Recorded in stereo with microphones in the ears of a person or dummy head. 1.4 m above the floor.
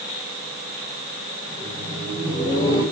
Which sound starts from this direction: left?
Laughter, at 1.5 s.